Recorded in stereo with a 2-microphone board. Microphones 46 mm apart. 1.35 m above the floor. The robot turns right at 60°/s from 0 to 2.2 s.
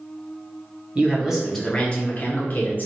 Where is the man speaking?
30° right, 0.6 m; by 2.9 s 45° left, 0.6 m.